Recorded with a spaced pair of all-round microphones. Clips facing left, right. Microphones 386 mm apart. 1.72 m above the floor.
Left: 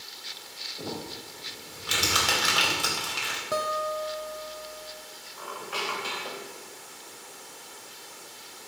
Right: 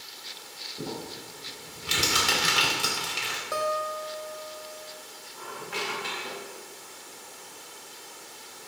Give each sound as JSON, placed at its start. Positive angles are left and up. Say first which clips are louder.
{"t": 0.8, "sound": "crumpling", "louder": "right 1 dB", "side_deg": -40, "distance_m": 4.0}
{"t": 3.5, "sound": "a guitar", "louder": "even", "side_deg": 50, "distance_m": 1.0}
{"t": 5.4, "sound": "a squeak", "louder": "even", "side_deg": -35, "distance_m": 2.5}